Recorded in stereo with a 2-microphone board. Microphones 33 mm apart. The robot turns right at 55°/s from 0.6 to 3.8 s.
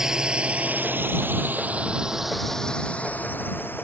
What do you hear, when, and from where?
0.0 s a drone: 15° right (ahead or behind); by 3.8 s 85° left